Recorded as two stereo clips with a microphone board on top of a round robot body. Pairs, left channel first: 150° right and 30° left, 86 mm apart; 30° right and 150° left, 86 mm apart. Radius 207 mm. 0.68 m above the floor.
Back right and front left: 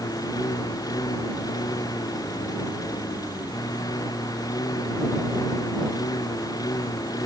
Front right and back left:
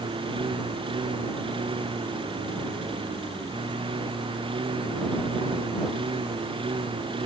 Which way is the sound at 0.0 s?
165° left.